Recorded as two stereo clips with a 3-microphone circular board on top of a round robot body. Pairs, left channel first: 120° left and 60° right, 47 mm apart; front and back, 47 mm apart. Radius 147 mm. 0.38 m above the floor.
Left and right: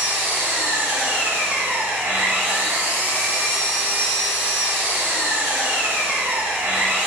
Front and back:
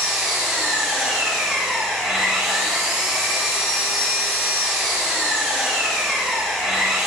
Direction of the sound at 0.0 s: 95° right.